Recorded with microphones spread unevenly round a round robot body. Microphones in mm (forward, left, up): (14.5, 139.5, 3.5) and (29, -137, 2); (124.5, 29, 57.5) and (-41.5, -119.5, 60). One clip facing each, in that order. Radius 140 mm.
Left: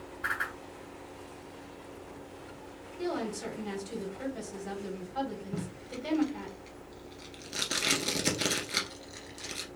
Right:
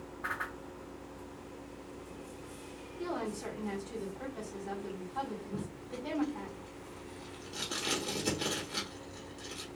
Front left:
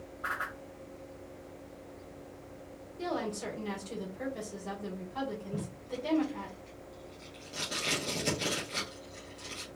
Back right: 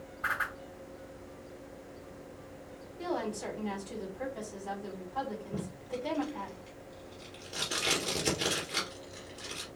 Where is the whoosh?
155° left, 1.9 m.